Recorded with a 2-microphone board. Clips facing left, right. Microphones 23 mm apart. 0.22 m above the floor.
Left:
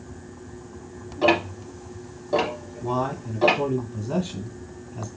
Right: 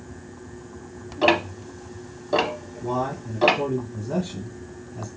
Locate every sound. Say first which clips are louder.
1.2 s ticking: right 1 dB; 35° right (ahead or behind), 0.8 m
2.8 s a man speaking: even; 35° left (ahead or behind), 1.8 m